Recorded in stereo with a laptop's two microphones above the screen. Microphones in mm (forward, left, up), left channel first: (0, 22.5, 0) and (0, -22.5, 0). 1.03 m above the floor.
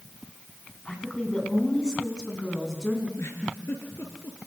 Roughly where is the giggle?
Left.